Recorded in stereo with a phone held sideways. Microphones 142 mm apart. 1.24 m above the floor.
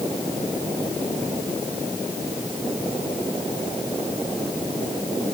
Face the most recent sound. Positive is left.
No sound to turn to.